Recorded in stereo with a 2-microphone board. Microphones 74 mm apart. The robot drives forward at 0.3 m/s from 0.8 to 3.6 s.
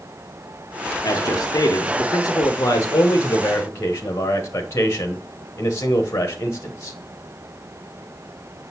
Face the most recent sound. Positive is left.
turn(degrees=35)  # may be behind; listen again after turning